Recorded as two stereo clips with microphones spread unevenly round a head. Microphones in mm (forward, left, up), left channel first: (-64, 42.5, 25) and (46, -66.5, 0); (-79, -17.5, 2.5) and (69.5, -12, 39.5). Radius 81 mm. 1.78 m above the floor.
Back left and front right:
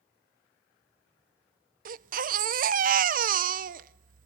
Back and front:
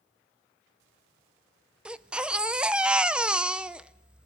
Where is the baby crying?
65° right, 0.8 m.